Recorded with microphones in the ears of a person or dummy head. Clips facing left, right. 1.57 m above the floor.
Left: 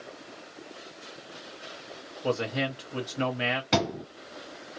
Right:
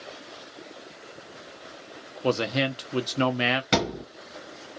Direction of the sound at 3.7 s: 15° right (ahead or behind).